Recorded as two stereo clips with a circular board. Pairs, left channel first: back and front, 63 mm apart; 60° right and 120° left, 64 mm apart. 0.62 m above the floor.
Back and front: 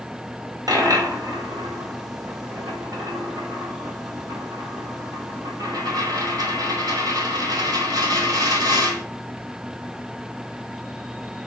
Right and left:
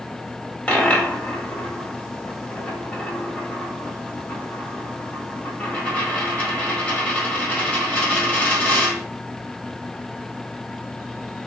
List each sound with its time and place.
0.7 s a dropped coin: 5° left, 1.4 m